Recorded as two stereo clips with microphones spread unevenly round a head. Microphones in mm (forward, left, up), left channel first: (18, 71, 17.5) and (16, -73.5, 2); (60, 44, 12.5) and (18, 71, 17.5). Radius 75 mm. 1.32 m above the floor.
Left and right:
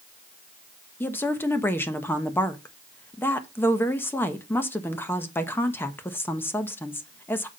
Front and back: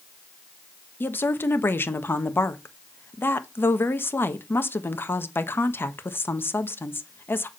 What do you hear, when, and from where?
1.0 s a woman speaking: 15° left, 1.2 m